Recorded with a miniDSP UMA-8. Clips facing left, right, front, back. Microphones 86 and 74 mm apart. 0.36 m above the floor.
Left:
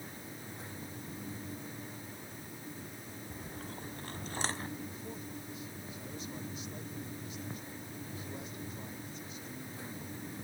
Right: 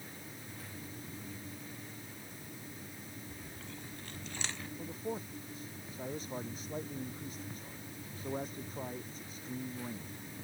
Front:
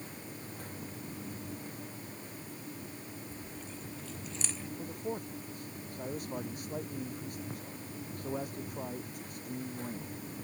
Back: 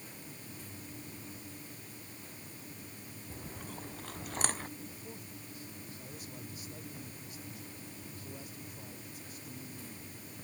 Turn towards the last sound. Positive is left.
turn(degrees=-40)